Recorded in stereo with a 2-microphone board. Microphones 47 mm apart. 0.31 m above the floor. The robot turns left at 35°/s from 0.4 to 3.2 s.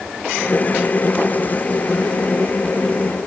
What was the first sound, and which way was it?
Only background noise.